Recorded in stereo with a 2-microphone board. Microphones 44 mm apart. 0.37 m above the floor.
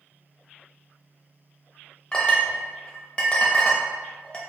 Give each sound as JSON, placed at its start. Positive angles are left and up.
{"t": 2.1, "sound": "a clink", "side_deg": 20, "distance_m": 0.6}